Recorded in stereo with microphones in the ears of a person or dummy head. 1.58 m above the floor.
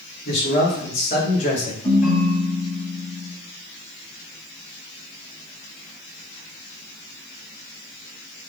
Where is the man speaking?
55° left (ahead or behind), 1.5 m; by 1.7 s 30° left (ahead or behind), 0.9 m.